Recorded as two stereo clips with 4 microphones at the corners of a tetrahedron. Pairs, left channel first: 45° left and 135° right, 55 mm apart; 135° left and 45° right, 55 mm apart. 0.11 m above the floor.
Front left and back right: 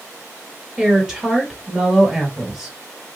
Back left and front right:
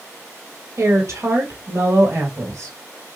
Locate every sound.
0.8 s a woman speaking: 60° right, 1.9 m